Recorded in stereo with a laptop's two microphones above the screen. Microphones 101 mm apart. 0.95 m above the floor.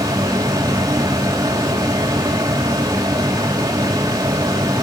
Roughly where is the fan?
Right.